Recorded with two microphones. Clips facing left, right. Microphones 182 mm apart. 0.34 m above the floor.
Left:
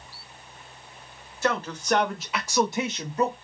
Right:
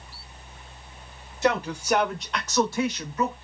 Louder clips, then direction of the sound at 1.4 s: Right 3 dB; 20° right (ahead or behind).